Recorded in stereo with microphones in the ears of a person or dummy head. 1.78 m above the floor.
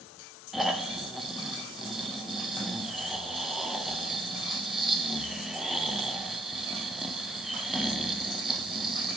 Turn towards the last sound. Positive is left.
turn(degrees=0)  # may be behind; listen again after turning